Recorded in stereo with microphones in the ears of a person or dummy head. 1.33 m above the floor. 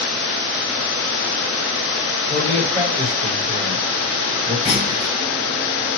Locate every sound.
2.3 s a man speaking: 35° right (ahead or behind), 2 m
4.7 s a clunk: centre (ahead or behind), 0.7 m